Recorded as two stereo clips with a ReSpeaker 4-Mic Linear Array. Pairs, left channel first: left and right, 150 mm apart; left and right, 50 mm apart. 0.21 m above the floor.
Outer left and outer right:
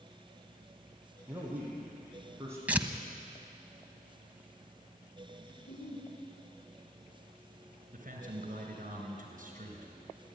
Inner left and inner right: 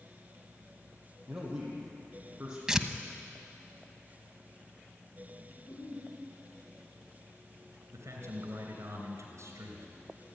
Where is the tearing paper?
10° right (ahead or behind), 1.0 m.